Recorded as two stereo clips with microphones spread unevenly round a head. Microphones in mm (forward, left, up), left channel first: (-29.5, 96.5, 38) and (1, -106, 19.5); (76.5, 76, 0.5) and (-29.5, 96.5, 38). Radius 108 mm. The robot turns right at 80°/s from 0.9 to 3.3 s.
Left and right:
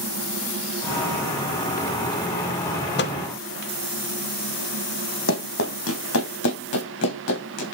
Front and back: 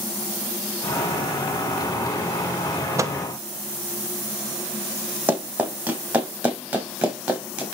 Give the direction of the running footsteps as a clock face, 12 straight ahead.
8 o'clock.